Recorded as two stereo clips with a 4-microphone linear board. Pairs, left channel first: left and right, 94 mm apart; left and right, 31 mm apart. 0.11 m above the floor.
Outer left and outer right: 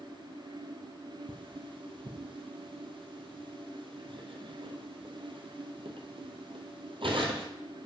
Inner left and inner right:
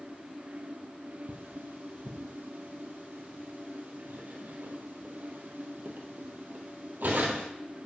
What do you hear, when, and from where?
1.3 s cutlery clinking: 65° right (ahead or behind), 1.8 m